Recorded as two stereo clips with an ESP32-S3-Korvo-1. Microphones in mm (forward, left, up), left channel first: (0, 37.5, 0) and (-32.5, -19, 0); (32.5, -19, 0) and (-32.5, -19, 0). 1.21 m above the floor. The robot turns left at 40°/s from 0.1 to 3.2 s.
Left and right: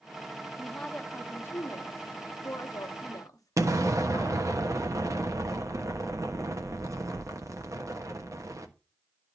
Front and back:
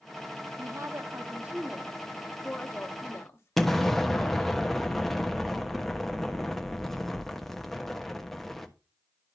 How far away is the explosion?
About 1.1 m.